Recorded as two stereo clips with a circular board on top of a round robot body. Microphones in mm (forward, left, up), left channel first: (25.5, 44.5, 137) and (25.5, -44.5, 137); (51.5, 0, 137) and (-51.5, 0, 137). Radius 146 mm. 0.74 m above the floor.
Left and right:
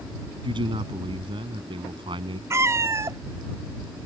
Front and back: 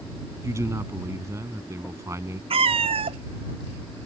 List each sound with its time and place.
0.4 s a man speaking: 120° right
2.5 s a cat meowing: 150° right